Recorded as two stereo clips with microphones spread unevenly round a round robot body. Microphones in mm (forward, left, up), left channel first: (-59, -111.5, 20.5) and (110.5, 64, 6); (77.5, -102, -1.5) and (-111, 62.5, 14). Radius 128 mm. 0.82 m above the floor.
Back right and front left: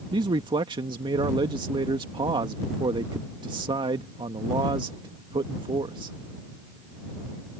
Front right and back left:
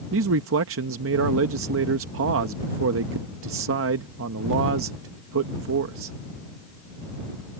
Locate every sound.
0.1 s a man speaking: 110° left